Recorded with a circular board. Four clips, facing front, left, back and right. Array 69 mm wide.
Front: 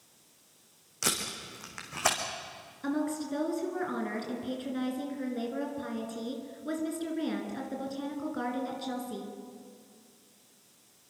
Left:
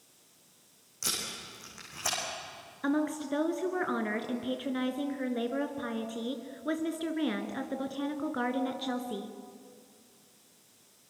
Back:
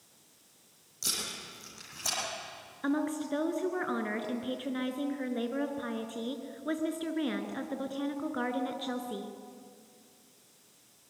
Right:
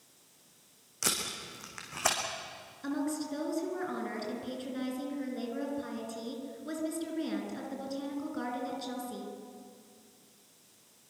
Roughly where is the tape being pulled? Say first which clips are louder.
Right 3 dB, front 6 dB; ahead right.